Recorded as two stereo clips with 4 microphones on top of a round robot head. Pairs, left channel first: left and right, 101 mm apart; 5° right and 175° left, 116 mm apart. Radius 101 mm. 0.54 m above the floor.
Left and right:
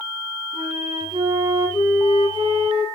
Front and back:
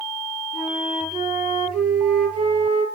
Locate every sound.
0.5 s a flute: 130° right, 6.5 m